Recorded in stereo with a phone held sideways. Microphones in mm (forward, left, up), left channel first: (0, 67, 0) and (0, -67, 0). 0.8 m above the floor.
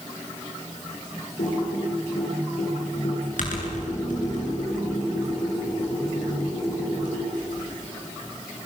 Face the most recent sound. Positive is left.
turn(degrees=75)  # may be behind; listen again after turning